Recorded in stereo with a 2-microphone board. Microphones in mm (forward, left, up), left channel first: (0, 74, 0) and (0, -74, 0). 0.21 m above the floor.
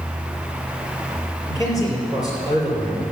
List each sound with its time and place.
1.4 s a man speaking: 20° left (ahead or behind), 5.5 m